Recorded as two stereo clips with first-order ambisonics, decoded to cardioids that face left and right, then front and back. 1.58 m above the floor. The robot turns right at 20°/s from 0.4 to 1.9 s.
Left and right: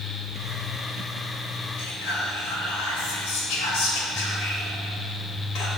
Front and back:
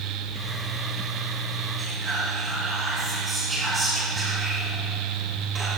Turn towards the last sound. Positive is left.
turn(degrees=105)